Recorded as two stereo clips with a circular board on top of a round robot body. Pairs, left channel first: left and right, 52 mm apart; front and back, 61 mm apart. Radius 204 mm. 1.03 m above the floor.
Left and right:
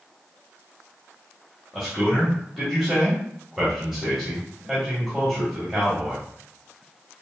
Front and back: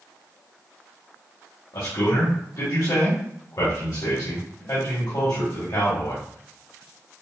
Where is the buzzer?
I don't hear a buzzer.